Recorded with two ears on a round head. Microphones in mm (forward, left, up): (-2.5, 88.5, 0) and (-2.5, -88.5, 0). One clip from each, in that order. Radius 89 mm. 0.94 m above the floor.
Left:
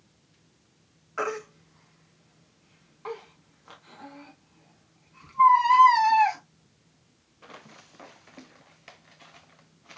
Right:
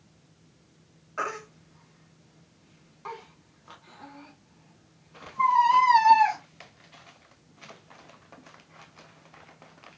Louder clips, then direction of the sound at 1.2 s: Left 2 dB; 5° left (ahead or behind).